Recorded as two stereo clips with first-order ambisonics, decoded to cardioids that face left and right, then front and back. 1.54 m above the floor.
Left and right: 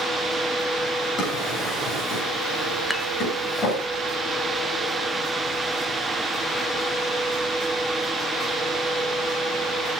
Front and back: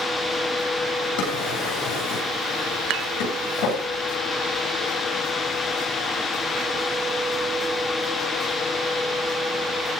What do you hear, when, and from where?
1.2 s a drawer: 30° left, 9.5 m
2.9 s dishes clattering: 175° left, 0.9 m